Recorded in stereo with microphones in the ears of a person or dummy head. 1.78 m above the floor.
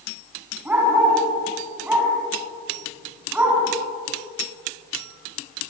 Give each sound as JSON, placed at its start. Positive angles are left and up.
{"t": 0.7, "sound": "a dog barking", "side_deg": -10, "distance_m": 7.0}